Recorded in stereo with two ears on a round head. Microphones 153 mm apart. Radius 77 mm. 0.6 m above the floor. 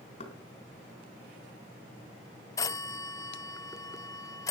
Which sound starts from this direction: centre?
A phone ringing, at 2.6 s.